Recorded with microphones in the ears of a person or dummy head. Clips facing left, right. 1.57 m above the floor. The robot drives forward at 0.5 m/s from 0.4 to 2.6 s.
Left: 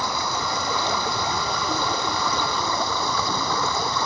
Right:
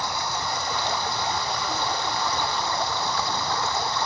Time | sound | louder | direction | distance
0.0 | running water | left 2 dB | 70° left (ahead or behind) | ?